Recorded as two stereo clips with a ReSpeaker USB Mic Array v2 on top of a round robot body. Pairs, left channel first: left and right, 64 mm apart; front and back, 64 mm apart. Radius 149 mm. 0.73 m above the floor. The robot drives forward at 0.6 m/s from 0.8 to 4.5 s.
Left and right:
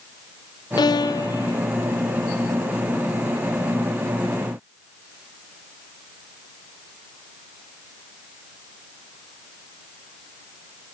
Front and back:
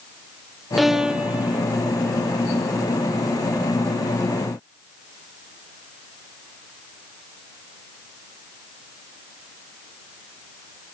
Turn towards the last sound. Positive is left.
turn(degrees=160)